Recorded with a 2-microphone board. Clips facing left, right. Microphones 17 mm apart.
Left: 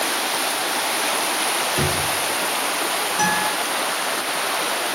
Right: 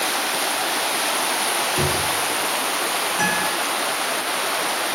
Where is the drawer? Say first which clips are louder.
Even; 15° left (ahead or behind), 1.9 m.